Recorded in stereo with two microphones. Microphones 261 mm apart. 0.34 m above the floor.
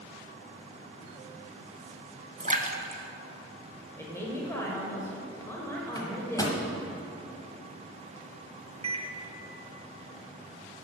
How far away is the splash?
About 0.8 m.